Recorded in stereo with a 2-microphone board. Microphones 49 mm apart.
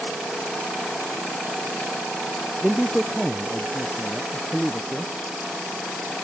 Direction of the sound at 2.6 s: 10° right (ahead or behind).